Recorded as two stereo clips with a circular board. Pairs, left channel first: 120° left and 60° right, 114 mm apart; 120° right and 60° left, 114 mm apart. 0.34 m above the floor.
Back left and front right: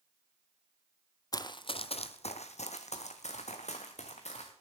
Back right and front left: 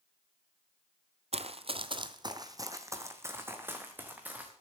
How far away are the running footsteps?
About 0.6 m.